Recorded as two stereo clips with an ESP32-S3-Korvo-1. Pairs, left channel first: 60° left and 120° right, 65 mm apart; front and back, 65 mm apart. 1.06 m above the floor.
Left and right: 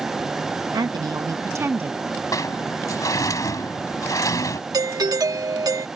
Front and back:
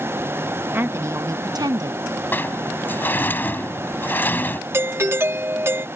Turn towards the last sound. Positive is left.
turn(degrees=-130)